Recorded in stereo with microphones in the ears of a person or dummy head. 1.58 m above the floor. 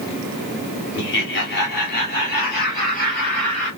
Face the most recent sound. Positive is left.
turn(degrees=40)  # may be behind; listen again after turning